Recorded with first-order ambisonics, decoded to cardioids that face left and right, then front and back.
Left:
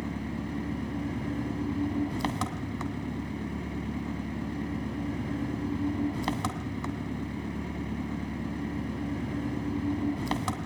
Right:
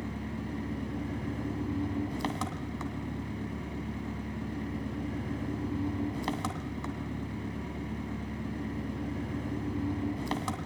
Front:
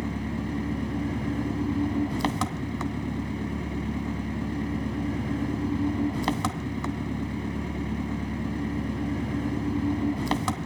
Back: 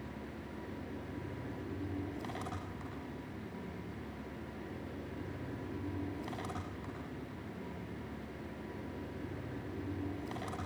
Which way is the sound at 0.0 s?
10° left.